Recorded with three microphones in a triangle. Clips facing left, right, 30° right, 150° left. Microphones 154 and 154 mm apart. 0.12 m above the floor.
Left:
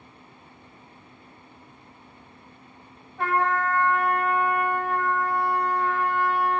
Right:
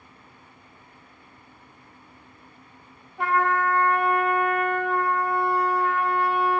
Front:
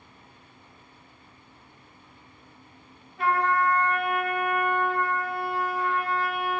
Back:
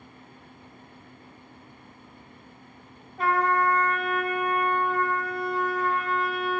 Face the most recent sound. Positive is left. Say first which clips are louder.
# right 1 dB, back 1 dB
turn(degrees=-160)